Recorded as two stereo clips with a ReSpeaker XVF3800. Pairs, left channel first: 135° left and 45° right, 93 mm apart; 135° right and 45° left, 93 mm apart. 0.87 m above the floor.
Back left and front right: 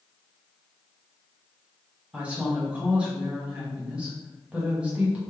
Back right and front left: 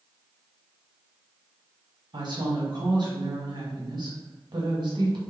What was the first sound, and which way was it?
A woman speaking, 30° left.